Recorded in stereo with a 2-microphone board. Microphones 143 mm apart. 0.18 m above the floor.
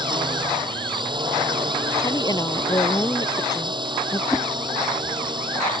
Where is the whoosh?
20° left (ahead or behind).